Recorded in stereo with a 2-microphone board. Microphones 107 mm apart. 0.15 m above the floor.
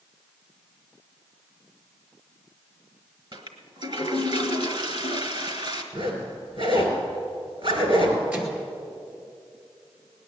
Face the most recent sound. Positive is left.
turn(degrees=-15)  # may be behind; listen again after turning